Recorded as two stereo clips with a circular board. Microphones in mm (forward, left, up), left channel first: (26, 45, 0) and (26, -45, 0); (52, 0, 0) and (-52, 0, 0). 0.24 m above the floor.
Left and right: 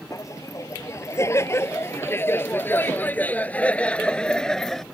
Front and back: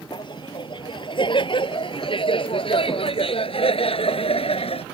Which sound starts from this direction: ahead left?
Laughter, at 0.1 s.